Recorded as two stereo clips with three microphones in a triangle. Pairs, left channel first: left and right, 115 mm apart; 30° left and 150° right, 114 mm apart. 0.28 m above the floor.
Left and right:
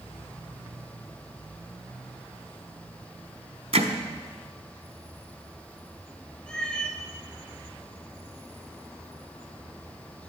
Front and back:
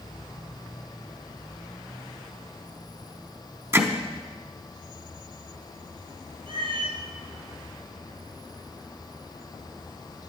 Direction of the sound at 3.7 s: 85° right.